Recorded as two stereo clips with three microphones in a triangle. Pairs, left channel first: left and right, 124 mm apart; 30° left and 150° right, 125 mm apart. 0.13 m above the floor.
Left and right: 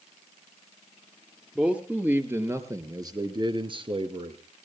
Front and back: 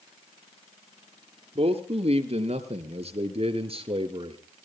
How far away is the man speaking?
About 2.5 m.